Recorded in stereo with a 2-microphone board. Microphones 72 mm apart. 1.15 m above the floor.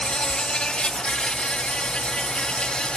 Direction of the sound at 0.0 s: 10° left (ahead or behind).